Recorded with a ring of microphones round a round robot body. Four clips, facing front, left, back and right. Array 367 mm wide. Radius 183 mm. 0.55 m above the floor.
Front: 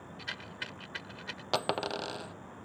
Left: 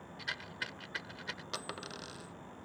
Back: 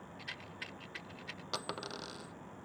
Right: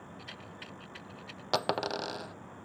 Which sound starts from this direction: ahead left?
A rattle, at 0.2 s.